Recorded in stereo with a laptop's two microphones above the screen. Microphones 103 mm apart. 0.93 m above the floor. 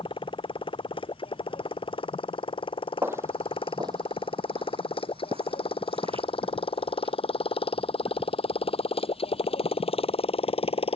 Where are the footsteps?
25° right (ahead or behind); by 7.2 s 65° right (ahead or behind).